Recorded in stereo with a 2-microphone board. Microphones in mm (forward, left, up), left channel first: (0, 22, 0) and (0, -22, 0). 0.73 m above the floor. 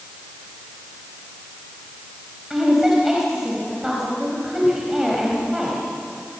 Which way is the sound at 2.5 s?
10° right (ahead or behind).